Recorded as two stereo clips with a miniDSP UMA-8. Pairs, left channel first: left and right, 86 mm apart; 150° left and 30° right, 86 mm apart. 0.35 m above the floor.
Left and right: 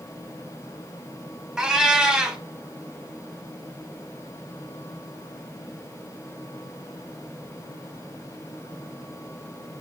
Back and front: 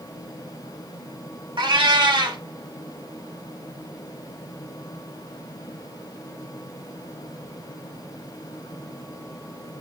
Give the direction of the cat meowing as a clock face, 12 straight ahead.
12 o'clock.